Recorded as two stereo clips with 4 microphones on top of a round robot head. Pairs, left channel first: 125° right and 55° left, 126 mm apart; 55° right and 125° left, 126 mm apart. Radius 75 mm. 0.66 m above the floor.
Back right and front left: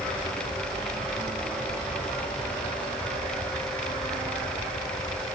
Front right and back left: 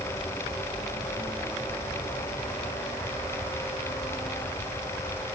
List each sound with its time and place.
Only background noise.